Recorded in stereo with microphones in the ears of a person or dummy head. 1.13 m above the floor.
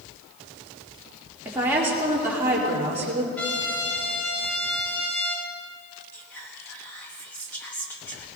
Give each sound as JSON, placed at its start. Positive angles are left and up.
{"t": 1.4, "sound": "a woman speaking", "side_deg": -10, "distance_m": 2.5}
{"t": 3.4, "sound": "a trumpet", "side_deg": 10, "distance_m": 2.5}
{"t": 6.1, "sound": "whispering", "side_deg": 15, "distance_m": 1.3}